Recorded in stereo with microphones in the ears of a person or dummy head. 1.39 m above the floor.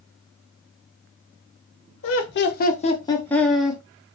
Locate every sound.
2.0 s laughter: 60° left (ahead or behind), 0.8 m; by 3.8 s 5° right (ahead or behind), 1.0 m